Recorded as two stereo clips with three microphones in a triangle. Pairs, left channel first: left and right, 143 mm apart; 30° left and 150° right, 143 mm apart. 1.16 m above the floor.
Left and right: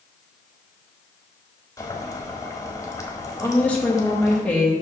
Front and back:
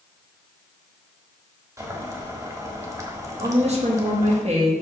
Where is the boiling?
150° left, 1.3 m.